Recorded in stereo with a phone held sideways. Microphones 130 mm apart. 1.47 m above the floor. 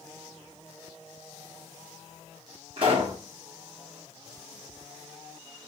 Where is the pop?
45° right (ahead or behind), 1.6 m.